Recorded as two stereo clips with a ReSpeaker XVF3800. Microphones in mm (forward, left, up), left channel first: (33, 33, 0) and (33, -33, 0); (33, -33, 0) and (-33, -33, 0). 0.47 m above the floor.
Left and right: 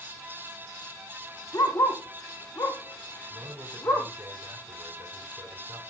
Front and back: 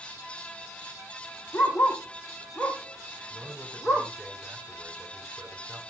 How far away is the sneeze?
I don't hear a sneeze.